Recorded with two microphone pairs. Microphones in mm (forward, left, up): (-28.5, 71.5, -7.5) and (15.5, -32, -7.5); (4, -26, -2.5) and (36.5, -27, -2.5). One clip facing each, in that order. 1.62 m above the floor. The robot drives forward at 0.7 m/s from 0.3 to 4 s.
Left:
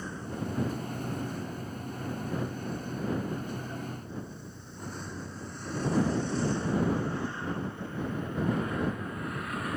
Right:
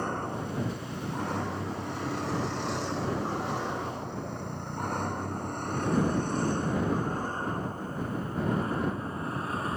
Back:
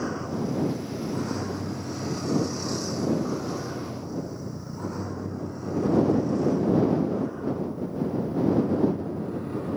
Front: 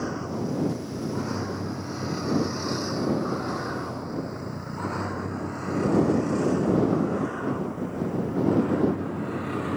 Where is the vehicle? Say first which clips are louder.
Right 4 dB, even; 90° right; by 9.8 s 5° right.